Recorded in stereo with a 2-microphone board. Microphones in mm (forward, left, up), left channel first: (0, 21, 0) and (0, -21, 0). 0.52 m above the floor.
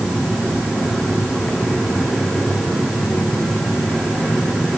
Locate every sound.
Only background noise.